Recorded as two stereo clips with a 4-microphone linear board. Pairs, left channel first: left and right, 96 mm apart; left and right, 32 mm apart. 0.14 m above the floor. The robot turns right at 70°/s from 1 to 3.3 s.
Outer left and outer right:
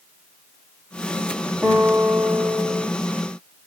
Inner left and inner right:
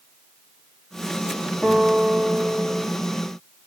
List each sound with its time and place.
1.6 s a guitar: 175° left, 3.5 m; by 2.9 s 100° right, 3.5 m